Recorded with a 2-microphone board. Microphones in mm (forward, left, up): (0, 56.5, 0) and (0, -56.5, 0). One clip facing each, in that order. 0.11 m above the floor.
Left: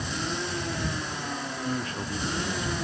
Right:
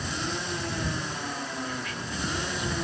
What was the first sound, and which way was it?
A man speaking, 30° left (ahead or behind).